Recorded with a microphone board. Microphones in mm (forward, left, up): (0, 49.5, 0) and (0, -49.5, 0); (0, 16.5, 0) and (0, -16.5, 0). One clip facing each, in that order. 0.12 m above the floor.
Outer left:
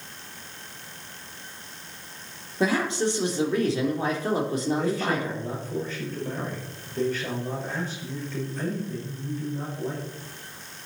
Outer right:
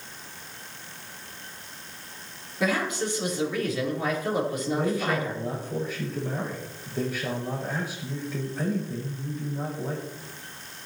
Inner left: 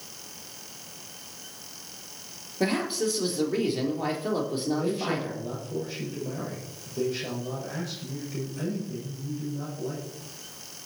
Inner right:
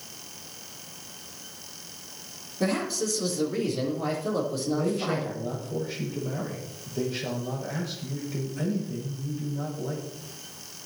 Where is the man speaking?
10° right (ahead or behind), 6.5 m.